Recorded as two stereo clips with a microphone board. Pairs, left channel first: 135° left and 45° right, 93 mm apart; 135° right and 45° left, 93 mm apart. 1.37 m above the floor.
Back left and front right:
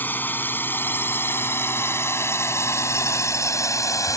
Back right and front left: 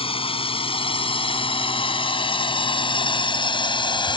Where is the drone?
155° right; by 4.2 s 170° right.